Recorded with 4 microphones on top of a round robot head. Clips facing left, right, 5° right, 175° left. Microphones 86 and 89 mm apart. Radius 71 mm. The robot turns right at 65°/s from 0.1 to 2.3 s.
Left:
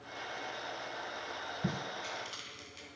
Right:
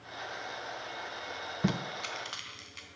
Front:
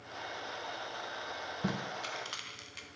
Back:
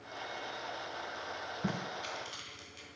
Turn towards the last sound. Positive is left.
turn(degrees=-45)